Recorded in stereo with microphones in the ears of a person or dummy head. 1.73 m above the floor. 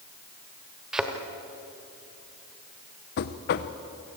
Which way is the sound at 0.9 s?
Centre (ahead or behind).